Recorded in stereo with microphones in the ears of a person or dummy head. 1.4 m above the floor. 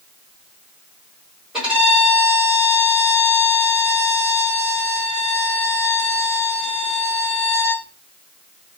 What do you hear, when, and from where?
1.5 s a violin: 5° right (ahead or behind), 2.5 m